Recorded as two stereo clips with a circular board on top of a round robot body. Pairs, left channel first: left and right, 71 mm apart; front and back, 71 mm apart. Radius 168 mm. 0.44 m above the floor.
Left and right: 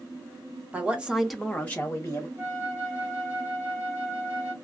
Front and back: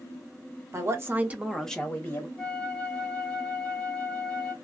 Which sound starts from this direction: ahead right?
A flute, at 2.4 s.